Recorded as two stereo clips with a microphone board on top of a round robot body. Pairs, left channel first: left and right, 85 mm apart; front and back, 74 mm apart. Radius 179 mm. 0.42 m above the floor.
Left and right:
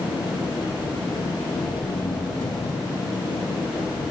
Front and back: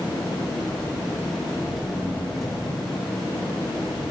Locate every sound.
0.0 s an engine running: 85° left, 4 m